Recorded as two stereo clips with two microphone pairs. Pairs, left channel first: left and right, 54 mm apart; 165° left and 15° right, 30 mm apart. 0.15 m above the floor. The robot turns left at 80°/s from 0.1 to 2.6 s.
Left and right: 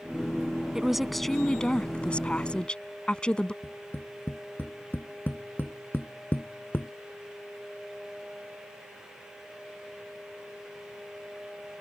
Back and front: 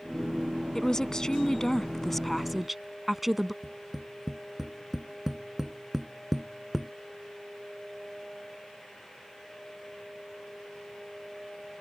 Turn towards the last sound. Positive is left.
turn(degrees=60)